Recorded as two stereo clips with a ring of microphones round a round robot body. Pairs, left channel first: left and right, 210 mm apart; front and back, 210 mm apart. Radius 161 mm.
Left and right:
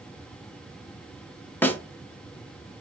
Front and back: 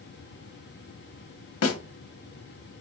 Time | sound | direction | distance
1.6 | a snare drum | 5° left | 0.6 m